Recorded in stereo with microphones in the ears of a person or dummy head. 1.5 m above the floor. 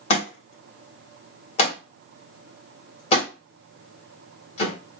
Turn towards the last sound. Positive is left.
turn(degrees=45)  # may be behind; listen again after turning